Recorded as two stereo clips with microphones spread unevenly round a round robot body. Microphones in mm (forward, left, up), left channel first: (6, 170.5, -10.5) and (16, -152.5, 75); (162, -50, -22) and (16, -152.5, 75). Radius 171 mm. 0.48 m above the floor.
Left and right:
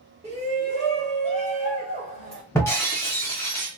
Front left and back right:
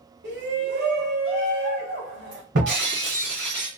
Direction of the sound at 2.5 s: 175° left.